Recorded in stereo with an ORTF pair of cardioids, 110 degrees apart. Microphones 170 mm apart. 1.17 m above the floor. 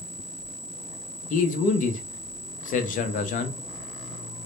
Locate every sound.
1.3 s a man speaking: 50° left, 0.6 m